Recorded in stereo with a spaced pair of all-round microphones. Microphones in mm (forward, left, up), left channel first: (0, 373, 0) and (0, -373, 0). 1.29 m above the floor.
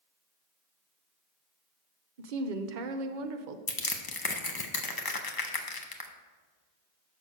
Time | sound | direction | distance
2.2 | a woman speaking | 85° right | 0.8 m
3.7 | crushing | 30° left (ahead or behind) | 0.7 m